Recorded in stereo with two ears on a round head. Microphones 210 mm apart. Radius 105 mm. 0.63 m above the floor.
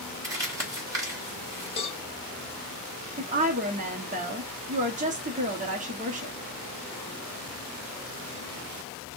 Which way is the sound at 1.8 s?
25° left (ahead or behind).